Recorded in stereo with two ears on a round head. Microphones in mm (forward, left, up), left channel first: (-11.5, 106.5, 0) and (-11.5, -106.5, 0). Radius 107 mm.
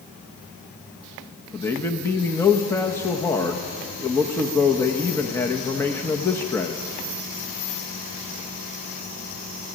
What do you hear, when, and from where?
1.5 s a man speaking: 10° left (ahead or behind), 1.1 m